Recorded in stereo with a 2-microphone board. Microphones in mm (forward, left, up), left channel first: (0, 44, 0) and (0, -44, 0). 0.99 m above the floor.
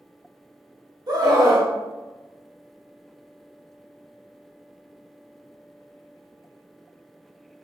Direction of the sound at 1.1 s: 45° right (ahead or behind).